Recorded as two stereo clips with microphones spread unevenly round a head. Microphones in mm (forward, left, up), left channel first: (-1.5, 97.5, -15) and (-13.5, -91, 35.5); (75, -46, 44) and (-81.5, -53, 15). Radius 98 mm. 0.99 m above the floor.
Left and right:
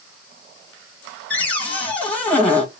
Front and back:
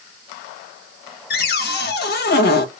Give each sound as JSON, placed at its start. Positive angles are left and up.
{"t": 1.3, "sound": "a cupboard door", "azimuth_deg": 15, "distance_m": 0.7}